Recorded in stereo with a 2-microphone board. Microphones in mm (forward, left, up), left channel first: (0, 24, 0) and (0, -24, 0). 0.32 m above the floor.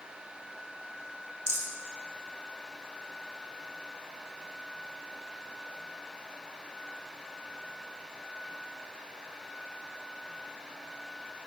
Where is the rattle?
85° right, 0.7 m.